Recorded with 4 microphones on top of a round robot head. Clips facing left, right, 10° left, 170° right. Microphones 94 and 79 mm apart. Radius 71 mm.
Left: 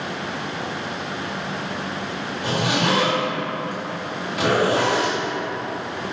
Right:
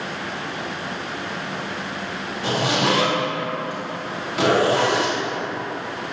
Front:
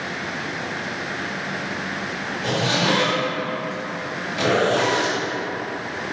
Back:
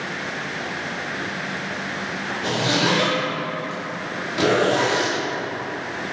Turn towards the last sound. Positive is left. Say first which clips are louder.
# right 1 dB, even
turn(degrees=-145)